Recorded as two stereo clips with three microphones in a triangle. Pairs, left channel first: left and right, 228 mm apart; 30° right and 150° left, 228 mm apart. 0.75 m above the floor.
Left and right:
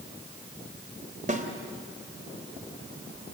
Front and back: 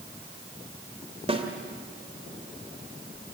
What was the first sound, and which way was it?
A snare drum, 145° right.